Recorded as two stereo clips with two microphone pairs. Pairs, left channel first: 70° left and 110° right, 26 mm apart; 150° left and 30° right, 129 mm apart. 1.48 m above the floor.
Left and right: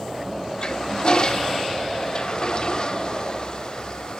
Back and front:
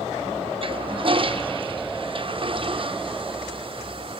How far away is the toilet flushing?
About 0.9 m.